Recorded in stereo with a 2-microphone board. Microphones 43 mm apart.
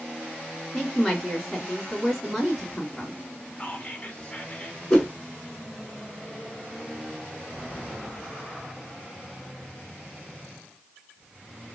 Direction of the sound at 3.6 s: 30° left (ahead or behind).